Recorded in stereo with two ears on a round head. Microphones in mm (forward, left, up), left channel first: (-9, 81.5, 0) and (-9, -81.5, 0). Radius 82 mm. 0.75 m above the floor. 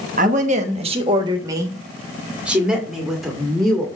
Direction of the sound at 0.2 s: 45° right (ahead or behind).